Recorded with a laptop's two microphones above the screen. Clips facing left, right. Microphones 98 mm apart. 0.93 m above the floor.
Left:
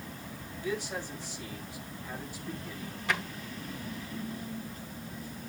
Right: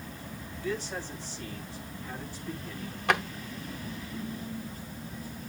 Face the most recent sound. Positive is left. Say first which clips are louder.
# right 6 dB
turn(degrees=-60)  # may be behind; listen again after turning